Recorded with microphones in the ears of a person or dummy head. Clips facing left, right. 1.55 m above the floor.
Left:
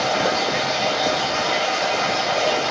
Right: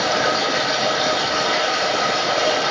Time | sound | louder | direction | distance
0.0 | running water | even | centre (ahead or behind) | 1.9 m